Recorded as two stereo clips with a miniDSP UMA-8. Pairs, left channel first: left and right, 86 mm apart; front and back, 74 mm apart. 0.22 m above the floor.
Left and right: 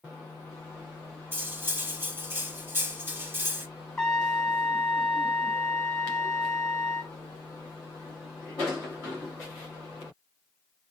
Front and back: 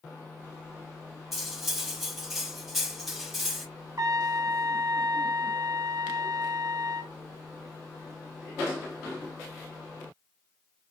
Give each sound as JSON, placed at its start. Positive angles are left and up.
{"t": 1.3, "sound": "cutlery clinking", "azimuth_deg": -95, "distance_m": 0.7}
{"t": 4.0, "sound": "a trumpet", "azimuth_deg": 170, "distance_m": 0.6}